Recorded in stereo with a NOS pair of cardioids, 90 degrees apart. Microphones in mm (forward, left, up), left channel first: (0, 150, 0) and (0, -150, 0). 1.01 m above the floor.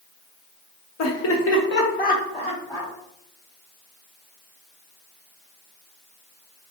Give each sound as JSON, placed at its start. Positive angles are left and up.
{"t": 1.0, "sound": "laughter", "azimuth_deg": 65, "distance_m": 0.9}